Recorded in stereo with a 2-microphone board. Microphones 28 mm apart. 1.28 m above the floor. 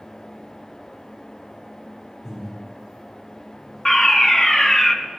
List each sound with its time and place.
2.2 s breathing: 10° right (ahead or behind), 4.5 m
3.9 s a fire alarm: 20° left (ahead or behind), 0.9 m